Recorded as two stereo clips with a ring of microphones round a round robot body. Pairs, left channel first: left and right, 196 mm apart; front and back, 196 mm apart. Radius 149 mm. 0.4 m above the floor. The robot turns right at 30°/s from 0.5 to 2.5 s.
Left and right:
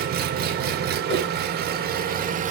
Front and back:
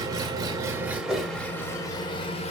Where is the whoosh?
90° left, 4 m; by 1.3 s 100° left, 4 m.